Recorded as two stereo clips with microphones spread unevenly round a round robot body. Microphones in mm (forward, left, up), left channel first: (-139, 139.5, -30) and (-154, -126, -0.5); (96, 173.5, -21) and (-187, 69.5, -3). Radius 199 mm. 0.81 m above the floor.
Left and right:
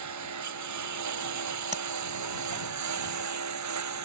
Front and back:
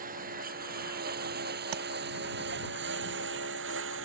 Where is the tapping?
160° right.